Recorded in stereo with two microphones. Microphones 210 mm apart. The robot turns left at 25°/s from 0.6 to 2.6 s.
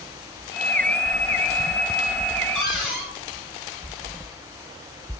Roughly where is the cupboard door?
Centre.